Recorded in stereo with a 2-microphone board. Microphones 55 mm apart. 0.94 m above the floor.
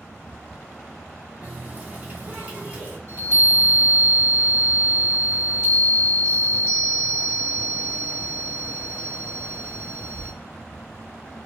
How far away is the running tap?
About 1.1 m.